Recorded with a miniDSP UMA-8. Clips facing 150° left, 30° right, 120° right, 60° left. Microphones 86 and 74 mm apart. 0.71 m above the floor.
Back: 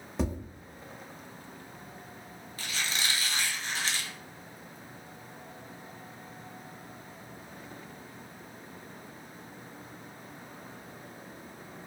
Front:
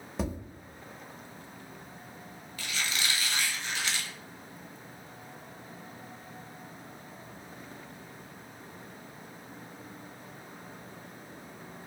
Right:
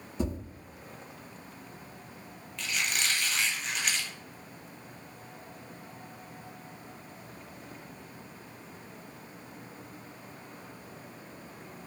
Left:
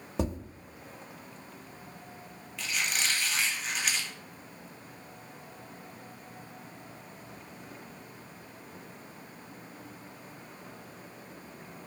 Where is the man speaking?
I don't hear a man speaking.